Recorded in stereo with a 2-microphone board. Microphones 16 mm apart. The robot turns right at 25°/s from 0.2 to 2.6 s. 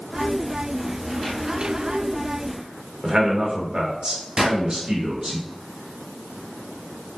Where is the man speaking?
60° right (ahead or behind), 1.1 m.